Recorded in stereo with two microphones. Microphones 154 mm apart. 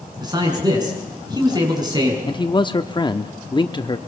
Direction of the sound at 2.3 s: 30° left (ahead or behind).